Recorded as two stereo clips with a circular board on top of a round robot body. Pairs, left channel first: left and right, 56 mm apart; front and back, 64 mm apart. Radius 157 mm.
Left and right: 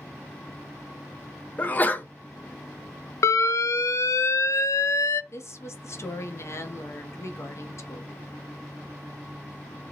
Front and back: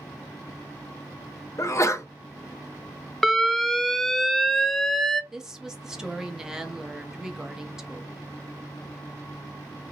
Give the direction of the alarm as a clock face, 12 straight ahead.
9 o'clock.